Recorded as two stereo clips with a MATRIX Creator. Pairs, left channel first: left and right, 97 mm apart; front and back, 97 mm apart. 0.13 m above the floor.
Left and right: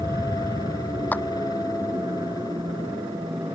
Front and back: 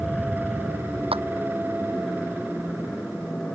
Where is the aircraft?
75° right.